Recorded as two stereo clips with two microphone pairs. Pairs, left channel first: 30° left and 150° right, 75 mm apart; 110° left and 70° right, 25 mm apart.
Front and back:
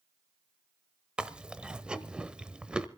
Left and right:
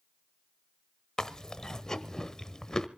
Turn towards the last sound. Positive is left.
turn(degrees=145)